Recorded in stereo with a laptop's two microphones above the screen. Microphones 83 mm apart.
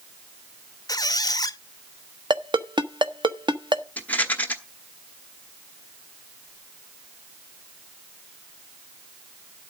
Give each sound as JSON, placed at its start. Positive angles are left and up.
{"t": 0.9, "sound": "a squeak", "side_deg": 45, "distance_m": 0.5}
{"t": 2.3, "sound": "a ringtone", "side_deg": -65, "distance_m": 1.0}
{"t": 4.0, "sound": "a rattle", "side_deg": 20, "distance_m": 1.1}